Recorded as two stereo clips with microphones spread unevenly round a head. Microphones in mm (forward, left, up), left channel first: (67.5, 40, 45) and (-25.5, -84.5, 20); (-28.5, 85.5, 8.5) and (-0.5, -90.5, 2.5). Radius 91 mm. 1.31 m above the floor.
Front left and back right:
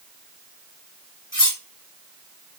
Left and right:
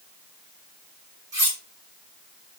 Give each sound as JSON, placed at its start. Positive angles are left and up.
{"t": 1.3, "sound": "cutlery clinking", "azimuth_deg": -10, "distance_m": 2.5}